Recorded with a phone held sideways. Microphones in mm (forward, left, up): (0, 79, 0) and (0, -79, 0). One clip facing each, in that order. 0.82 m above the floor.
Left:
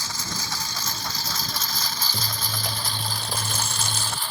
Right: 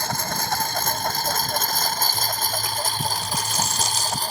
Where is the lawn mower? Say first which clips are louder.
Right 7 dB; 55° right (ahead or behind); by 4.3 s 40° right (ahead or behind).